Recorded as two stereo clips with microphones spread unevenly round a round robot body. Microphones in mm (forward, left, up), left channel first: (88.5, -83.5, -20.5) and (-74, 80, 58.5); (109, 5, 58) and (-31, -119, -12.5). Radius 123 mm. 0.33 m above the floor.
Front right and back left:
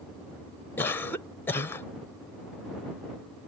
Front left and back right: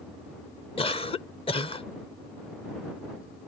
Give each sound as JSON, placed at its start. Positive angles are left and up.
{"t": 0.8, "sound": "a cough", "azimuth_deg": -30}